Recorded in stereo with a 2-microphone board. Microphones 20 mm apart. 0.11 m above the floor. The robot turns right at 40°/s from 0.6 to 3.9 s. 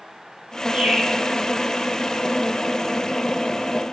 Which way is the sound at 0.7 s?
85° right.